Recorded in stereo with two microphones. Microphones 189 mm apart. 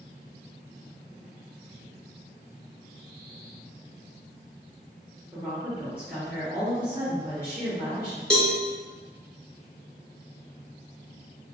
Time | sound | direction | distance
5.3 | a woman speaking | 10° right (ahead or behind) | 0.8 m
8.3 | a cowbell | 5° left (ahead or behind) | 0.6 m